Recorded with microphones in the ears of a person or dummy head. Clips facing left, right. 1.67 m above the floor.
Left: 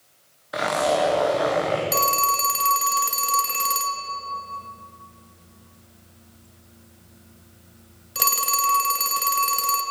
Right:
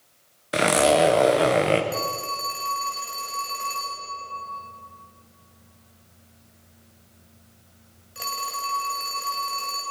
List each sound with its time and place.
0.5 s a zipper: 35° right (ahead or behind), 0.9 m
1.9 s a phone ringing: 60° left (ahead or behind), 1.6 m